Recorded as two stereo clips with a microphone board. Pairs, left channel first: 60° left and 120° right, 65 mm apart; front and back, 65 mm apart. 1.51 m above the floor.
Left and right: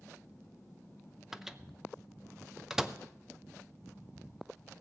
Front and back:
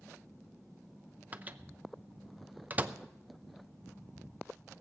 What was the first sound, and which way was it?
A microwave, 165° left.